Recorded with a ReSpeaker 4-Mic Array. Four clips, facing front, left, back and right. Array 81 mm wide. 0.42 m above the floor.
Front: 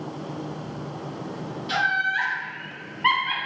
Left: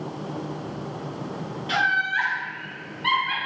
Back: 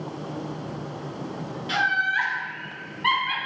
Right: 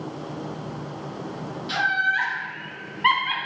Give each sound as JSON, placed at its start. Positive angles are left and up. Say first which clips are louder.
{"t": 1.7, "sound": "laughter", "louder": "even, even", "azimuth_deg": 120, "distance_m": 0.9}